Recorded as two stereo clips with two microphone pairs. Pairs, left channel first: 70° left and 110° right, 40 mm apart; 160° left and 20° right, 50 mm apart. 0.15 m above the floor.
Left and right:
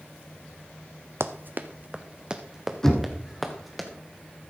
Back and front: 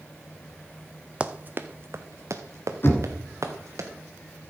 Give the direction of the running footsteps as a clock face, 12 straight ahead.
3 o'clock.